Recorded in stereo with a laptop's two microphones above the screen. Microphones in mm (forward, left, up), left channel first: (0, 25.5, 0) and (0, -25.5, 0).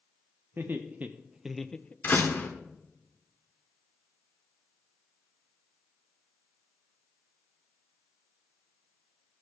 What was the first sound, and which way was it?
Laughter, 40° right (ahead or behind).